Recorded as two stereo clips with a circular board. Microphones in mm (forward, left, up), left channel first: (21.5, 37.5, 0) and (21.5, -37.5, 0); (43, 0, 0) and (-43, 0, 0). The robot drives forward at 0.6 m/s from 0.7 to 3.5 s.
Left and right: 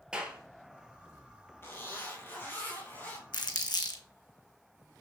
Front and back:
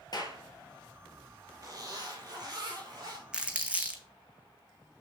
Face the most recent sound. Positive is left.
turn(degrees=105)